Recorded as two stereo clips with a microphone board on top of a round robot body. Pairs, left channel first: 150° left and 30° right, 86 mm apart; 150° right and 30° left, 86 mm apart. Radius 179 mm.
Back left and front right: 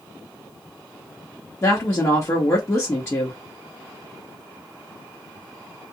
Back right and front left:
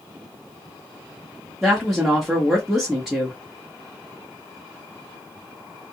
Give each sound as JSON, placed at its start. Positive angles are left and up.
{"t": 1.6, "sound": "a woman speaking", "azimuth_deg": 115, "distance_m": 1.4}